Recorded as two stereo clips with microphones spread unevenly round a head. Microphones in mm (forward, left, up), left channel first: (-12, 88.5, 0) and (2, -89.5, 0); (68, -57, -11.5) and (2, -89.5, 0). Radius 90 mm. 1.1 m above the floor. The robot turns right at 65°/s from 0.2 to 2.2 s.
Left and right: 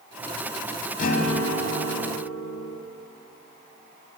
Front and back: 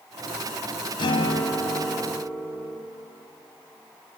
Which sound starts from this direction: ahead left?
A guitar, at 1.0 s.